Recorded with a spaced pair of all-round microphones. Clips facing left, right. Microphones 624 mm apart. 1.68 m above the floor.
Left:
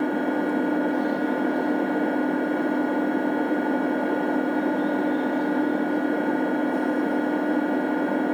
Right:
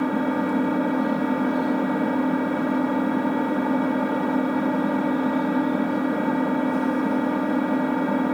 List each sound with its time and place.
0.0 s an engine running: 35° right (ahead or behind), 0.7 m